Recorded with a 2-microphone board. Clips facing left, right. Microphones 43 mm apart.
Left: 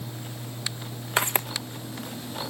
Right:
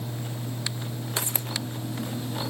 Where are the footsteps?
40° left (ahead or behind), 2.0 m.